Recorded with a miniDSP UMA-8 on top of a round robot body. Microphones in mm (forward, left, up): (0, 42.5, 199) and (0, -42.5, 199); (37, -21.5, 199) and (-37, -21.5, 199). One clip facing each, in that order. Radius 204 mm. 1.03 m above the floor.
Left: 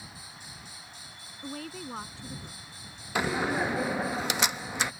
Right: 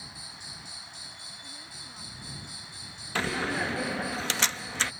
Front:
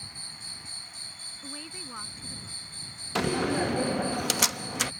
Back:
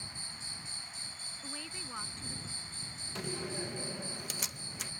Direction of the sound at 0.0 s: 40° left.